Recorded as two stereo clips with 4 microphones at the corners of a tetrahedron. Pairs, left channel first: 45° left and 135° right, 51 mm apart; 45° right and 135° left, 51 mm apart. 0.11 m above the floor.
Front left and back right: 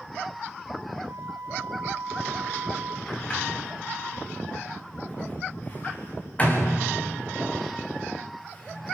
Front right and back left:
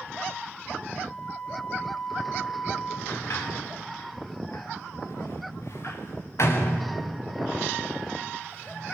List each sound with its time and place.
1.1 s a flute: 120° right, 4.5 m
3.1 s a sliding door: 20° right, 3.5 m